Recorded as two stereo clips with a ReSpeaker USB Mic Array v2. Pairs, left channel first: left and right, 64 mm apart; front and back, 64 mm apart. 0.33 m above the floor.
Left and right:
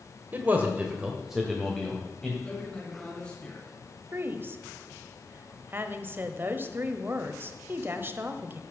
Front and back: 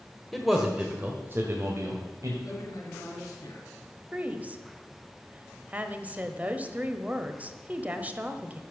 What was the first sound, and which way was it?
A man speaking, 85° right.